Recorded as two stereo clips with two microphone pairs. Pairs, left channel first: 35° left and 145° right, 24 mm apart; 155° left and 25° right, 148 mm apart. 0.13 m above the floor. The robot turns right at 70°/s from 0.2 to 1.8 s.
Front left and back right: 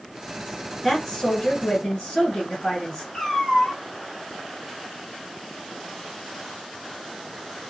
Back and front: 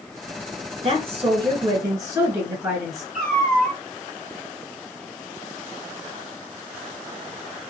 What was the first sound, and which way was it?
A woman speaking, 35° right.